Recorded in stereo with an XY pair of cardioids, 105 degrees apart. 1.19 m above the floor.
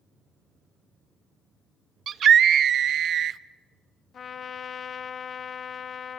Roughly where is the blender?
I don't hear a blender.